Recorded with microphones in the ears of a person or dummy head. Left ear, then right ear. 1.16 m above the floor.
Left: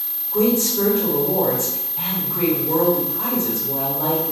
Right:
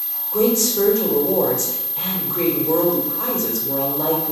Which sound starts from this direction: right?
A woman speaking, at 0.3 s.